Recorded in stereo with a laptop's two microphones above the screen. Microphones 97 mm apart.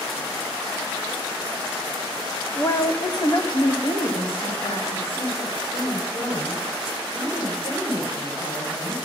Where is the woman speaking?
20° left (ahead or behind), 0.7 m; by 8.9 s 75° left (ahead or behind), 5 m.